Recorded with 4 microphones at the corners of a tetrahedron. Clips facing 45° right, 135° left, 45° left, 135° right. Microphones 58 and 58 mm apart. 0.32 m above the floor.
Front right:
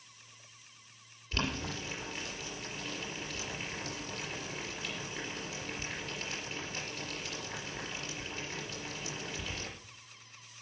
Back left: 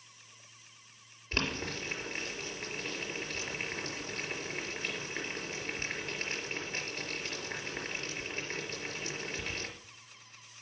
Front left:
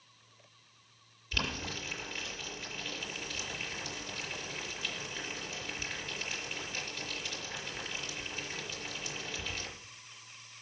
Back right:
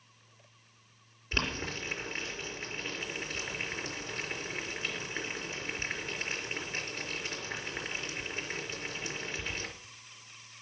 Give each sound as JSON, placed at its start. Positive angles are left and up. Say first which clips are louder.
{"t": 1.3, "sound": "boiling", "louder": "back left 1 dB, back right 2 dB", "azimuth_deg": 180, "distance_m": 4.5}